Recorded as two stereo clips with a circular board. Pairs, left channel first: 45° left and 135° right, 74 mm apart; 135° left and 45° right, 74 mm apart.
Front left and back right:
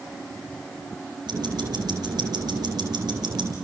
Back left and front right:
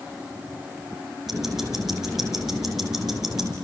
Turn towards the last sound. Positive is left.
turn(degrees=-130)